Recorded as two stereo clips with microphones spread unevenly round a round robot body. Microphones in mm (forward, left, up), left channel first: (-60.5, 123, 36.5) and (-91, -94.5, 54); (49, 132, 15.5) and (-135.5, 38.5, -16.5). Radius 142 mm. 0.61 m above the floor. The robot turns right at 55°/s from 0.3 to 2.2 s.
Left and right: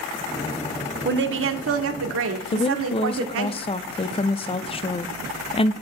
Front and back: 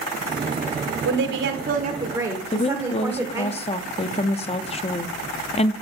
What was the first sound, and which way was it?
A woman speaking, 140° right.